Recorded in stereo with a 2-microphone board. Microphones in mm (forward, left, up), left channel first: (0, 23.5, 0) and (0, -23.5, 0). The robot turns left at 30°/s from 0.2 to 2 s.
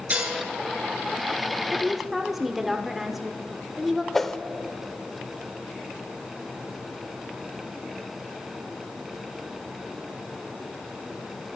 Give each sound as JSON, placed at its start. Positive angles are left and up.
{"t": 0.1, "sound": "dishes clattering", "side_deg": -35, "distance_m": 4.5}
{"t": 1.7, "sound": "a woman speaking", "side_deg": -10, "distance_m": 1.0}
{"t": 4.1, "sound": "a whoosh", "side_deg": 5, "distance_m": 0.6}